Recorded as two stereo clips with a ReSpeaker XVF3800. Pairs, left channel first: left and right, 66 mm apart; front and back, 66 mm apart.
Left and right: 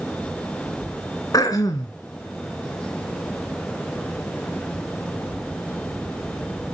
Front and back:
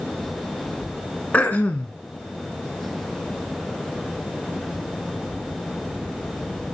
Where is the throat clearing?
65° left, 1.9 m.